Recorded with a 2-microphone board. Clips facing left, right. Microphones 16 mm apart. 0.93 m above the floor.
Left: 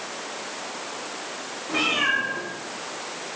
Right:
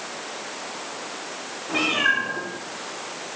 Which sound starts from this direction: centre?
A cat meowing, at 1.7 s.